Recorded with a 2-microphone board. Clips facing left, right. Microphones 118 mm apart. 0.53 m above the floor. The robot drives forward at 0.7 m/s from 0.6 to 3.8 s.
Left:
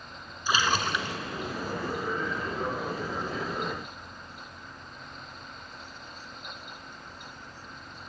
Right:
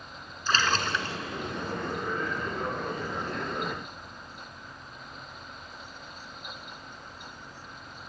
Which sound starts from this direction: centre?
A splash, at 0.5 s.